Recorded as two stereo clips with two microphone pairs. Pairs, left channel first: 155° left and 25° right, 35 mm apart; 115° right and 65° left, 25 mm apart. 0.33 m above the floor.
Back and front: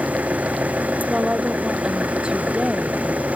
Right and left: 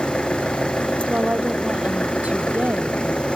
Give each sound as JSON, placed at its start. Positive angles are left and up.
{"t": 0.0, "sound": "an engine running", "azimuth_deg": -70}
{"t": 1.1, "sound": "a woman speaking", "azimuth_deg": 40}